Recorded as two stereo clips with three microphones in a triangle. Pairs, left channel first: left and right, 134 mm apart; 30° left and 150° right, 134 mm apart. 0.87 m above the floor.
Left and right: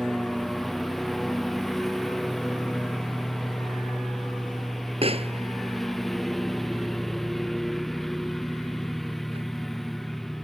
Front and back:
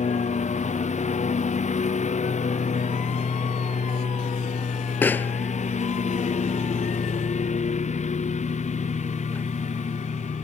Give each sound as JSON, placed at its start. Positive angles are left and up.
{"t": 0.0, "sound": "a lawn mower", "azimuth_deg": 0}
{"t": 5.0, "sound": "a pop", "azimuth_deg": -45}